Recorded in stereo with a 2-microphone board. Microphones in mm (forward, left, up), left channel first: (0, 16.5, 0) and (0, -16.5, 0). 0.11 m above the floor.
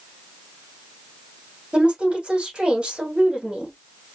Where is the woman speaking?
30° right (ahead or behind), 4 m.